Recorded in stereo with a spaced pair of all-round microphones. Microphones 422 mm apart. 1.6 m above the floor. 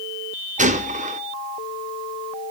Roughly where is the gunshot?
Centre.